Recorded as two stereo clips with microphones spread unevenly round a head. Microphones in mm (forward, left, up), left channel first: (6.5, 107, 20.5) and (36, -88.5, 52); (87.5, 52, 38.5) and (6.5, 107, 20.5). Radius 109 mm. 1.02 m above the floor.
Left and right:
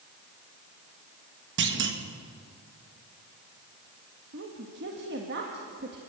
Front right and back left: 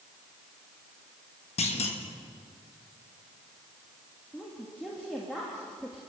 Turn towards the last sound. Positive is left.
turn(degrees=-120)